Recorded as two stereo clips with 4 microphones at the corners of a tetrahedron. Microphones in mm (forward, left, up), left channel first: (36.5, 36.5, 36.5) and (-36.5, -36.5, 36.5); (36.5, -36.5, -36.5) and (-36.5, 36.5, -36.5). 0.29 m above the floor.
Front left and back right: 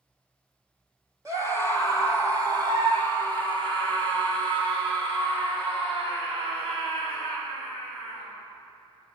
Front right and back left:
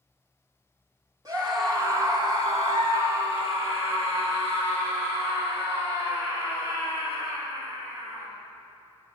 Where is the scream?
175° left, 2.5 m; by 8.3 s 155° right, 5.5 m.